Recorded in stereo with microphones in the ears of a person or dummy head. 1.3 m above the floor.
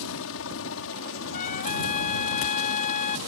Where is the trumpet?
40° left (ahead or behind).